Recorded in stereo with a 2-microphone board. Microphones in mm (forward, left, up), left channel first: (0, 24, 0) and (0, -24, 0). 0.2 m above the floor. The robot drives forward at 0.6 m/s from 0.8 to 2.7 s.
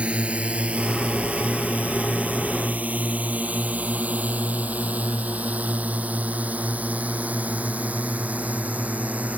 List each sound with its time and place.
0.0 s a drone: 25° right (ahead or behind); by 9.4 s 30° right (ahead or behind)